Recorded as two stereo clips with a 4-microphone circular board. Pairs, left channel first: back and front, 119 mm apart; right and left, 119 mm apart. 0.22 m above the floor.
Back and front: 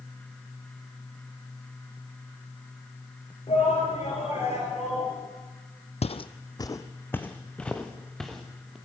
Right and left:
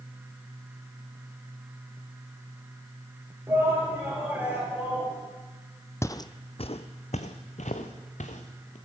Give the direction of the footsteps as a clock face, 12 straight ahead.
5 o'clock.